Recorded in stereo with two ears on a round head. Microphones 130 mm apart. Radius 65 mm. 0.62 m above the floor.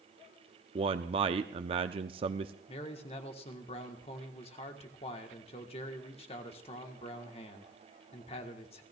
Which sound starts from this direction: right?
A man speaking, at 0.8 s.